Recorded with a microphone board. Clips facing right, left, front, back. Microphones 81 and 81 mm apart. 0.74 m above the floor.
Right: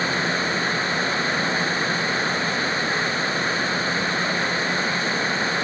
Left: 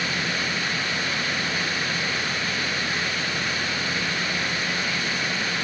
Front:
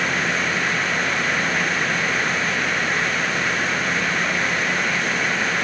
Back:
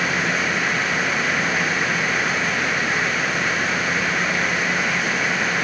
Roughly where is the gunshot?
I don't hear a gunshot.